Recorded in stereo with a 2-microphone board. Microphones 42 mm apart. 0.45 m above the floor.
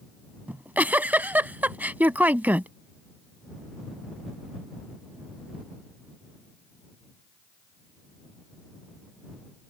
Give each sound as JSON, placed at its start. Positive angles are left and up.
{"t": 0.5, "sound": "a giggle", "side_deg": -45}